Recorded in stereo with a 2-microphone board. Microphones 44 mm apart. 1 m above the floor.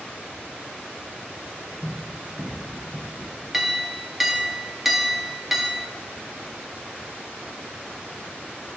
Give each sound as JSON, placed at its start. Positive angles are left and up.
{"t": 1.8, "sound": "running footsteps", "side_deg": 50, "distance_m": 2.0}
{"t": 3.5, "sound": "a clink", "side_deg": -5, "distance_m": 0.8}